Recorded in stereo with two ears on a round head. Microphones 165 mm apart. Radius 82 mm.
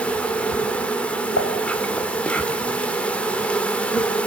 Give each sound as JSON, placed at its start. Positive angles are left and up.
{"t": 0.0, "sound": "an insect", "side_deg": 5, "distance_m": 1.5}
{"t": 1.4, "sound": "dishes clattering", "side_deg": 75, "distance_m": 3.5}